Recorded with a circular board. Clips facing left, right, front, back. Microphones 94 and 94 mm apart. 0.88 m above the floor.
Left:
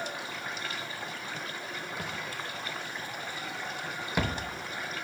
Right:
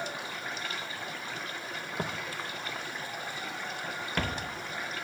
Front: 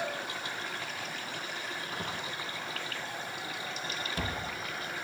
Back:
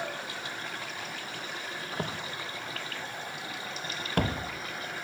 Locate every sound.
2.0 s footsteps: 140° right, 1.5 m; by 4.5 s 160° left, 1.7 m